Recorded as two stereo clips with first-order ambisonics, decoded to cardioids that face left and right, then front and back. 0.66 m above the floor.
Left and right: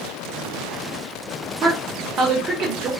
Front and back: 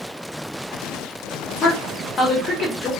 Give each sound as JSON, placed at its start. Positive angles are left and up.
{"t": 1.6, "sound": "a woman speaking", "azimuth_deg": -50, "distance_m": 0.7}